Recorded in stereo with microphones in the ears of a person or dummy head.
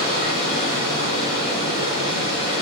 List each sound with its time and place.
0.0 s running water: 45° left (ahead or behind), 1.8 m